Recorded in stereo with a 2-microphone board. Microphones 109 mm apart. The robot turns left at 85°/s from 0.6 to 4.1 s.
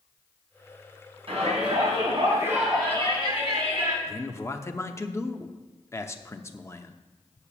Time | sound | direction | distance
1.3 | a shout | 55° right | 4 m
4.1 | a man speaking | 25° left (ahead or behind) | 0.7 m